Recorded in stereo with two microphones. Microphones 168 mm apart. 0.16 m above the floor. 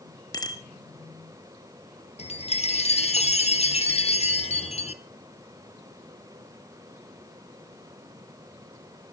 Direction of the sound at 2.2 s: 40° left (ahead or behind).